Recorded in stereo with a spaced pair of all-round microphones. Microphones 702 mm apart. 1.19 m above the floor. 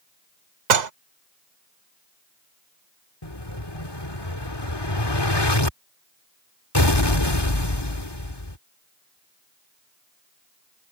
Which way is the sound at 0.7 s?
75° right (ahead or behind).